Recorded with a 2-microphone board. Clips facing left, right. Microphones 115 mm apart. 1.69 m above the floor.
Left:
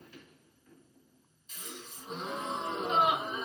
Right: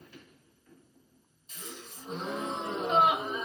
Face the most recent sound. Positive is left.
turn(degrees=-35)  # may be behind; listen again after turning